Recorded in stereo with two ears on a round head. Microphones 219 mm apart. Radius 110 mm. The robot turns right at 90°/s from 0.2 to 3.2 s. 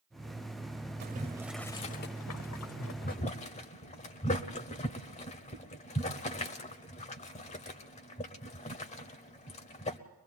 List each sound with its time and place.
1.0 s boiling: 45° right (ahead or behind), 1.0 m; by 10.0 s 30° left (ahead or behind), 1.0 m